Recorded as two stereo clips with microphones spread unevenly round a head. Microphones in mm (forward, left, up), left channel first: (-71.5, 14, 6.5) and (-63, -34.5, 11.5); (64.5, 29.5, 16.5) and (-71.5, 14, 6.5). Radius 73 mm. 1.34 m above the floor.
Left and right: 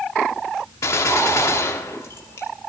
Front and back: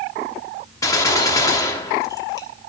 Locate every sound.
0.8 s a gunshot: 65° left, 1.2 m